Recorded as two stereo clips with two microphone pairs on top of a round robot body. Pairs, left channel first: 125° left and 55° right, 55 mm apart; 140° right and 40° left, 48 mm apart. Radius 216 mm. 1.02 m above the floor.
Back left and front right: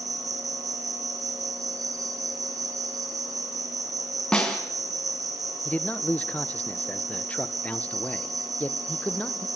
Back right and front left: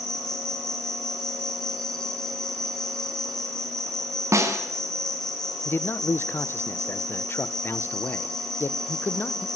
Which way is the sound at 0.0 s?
65° right.